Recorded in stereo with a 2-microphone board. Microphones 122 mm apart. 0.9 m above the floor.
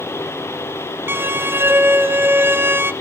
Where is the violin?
20° right (ahead or behind), 1.0 m.